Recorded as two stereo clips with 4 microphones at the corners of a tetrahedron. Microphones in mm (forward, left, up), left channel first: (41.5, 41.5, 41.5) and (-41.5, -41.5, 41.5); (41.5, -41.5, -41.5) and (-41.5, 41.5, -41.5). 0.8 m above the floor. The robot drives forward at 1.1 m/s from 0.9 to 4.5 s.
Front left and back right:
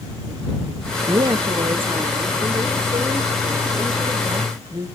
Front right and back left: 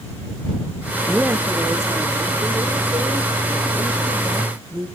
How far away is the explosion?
I don't hear an explosion.